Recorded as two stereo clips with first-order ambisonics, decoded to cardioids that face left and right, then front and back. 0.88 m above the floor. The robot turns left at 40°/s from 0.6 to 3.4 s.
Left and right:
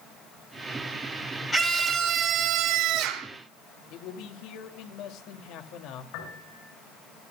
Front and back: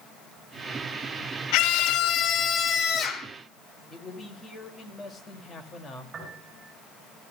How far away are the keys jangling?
No keys jangling in this recording.